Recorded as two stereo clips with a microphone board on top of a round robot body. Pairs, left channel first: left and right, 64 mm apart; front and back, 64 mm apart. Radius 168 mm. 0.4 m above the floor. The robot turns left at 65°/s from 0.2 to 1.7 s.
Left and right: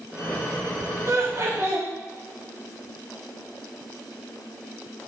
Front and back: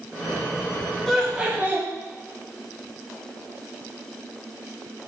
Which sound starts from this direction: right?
Laughter, at 1.1 s.